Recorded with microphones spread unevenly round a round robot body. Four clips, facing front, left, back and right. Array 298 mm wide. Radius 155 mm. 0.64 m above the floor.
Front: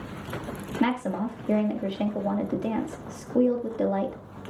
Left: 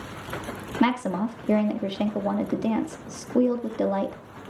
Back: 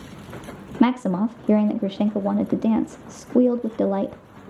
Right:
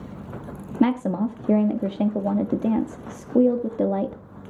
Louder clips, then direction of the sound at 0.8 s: Right 2 dB, back 7 dB; 160° right.